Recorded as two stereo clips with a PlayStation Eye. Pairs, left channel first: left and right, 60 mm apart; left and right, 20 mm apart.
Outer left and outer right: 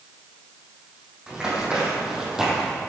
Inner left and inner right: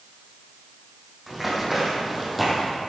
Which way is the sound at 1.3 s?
15° right (ahead or behind).